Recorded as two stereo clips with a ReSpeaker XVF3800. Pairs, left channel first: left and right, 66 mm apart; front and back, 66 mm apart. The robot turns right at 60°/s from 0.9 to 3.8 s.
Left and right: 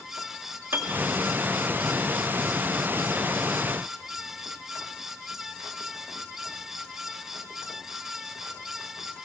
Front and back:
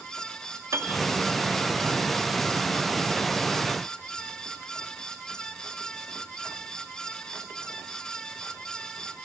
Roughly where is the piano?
Behind right.